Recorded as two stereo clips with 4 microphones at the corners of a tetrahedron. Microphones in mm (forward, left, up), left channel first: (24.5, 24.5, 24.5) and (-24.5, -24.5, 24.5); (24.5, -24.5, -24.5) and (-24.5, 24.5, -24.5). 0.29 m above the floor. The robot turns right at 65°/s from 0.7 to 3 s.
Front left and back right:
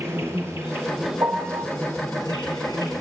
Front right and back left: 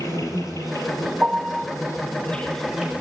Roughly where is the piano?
Behind right.